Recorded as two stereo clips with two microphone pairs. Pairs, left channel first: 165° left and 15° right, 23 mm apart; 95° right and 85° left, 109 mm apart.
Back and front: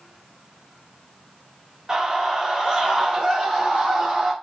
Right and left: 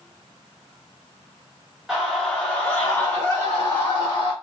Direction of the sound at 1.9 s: 5° left.